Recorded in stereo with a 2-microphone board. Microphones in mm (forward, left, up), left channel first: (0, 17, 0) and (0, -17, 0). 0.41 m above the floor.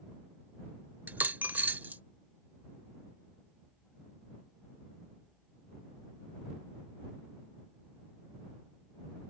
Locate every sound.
1.1 s a dropped coin: 60° right (ahead or behind)